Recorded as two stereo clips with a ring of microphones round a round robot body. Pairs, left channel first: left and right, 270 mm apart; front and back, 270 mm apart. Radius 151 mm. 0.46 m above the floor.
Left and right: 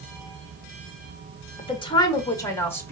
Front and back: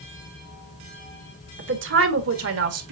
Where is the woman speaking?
155° left, 1.6 m; by 2.9 s 170° left, 2 m.